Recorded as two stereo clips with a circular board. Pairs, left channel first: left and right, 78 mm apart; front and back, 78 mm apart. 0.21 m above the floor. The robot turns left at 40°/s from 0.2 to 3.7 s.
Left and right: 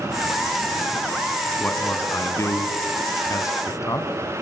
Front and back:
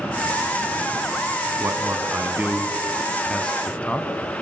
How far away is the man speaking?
About 2.5 m.